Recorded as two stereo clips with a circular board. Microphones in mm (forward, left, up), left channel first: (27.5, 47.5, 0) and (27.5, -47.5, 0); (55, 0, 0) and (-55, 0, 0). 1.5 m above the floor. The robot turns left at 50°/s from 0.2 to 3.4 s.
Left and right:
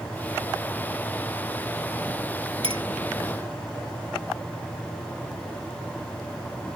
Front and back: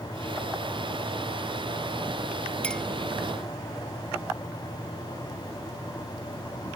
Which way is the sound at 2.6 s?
75° right.